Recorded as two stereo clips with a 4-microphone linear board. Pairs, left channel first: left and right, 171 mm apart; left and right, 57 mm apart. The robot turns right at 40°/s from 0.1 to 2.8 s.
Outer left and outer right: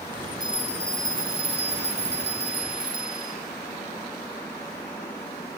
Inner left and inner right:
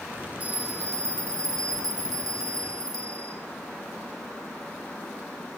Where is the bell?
155° right, 0.9 m; by 3.4 s 60° right, 0.9 m.